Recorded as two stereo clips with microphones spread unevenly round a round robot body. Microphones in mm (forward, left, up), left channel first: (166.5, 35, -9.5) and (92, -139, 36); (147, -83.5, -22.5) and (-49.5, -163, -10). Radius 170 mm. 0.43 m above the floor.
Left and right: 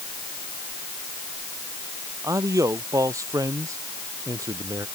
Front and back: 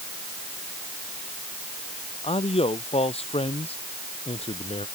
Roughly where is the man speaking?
Ahead right.